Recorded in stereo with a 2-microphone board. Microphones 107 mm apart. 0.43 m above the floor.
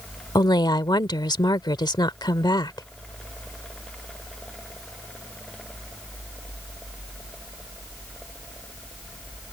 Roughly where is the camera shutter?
I don't hear a camera shutter.